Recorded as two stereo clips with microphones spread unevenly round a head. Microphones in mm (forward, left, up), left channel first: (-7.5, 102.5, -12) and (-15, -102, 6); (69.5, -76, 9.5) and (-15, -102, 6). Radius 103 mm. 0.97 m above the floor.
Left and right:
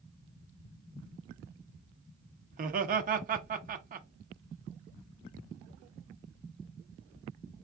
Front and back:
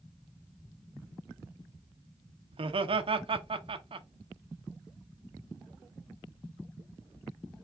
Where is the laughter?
145° right, 0.8 m.